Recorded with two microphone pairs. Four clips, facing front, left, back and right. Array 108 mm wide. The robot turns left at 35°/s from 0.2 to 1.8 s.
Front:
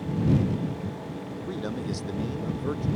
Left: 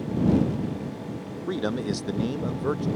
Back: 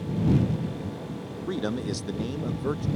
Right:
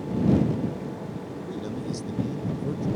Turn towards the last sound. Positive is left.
turn(degrees=100)